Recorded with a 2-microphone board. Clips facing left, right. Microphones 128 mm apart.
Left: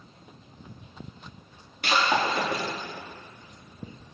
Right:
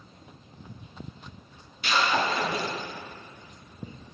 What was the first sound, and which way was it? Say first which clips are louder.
Breaking glass: left 1 dB; 55° left (ahead or behind).